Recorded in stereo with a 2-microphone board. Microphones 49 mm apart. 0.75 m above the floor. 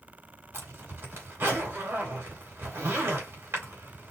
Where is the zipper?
60° right (ahead or behind), 3.5 m.